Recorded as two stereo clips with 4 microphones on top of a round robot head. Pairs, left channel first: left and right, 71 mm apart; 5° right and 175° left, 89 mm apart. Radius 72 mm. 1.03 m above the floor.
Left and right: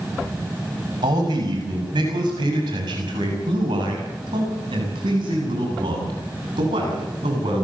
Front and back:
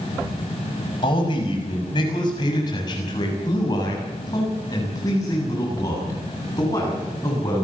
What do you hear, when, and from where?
1.0 s a man speaking: 50° right, 6 m; by 7.7 s 70° right, 9.5 m